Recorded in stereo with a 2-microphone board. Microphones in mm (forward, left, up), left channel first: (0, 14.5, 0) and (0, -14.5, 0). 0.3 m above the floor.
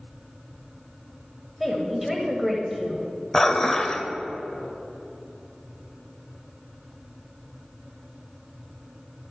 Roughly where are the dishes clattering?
Centre.